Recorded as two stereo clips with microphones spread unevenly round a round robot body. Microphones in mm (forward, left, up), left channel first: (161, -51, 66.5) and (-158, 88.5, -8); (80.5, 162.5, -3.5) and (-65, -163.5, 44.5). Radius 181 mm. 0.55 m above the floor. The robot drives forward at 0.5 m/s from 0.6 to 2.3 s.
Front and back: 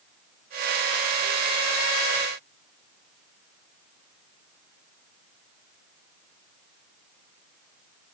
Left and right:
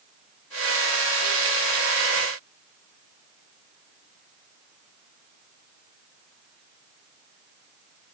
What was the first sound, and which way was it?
Only background noise.